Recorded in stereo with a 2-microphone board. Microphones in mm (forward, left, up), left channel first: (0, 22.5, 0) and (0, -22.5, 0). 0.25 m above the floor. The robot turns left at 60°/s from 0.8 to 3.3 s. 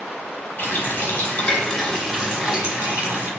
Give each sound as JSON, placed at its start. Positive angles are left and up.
{"t": 0.6, "sound": "a running tap", "azimuth_deg": 75, "distance_m": 0.9}